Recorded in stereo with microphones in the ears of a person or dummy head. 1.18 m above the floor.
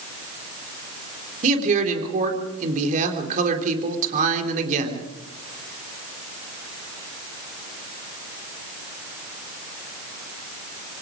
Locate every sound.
1.4 s a man speaking: 40° right (ahead or behind), 3.5 m